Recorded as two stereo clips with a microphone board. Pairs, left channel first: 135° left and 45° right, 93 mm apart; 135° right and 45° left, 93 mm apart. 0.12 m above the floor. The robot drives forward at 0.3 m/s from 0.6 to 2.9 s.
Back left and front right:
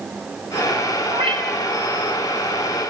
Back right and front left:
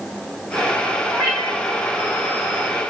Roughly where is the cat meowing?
Ahead right.